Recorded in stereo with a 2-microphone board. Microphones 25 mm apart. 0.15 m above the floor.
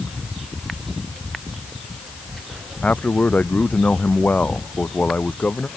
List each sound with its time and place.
2.8 s a man speaking: 65° left (ahead or behind)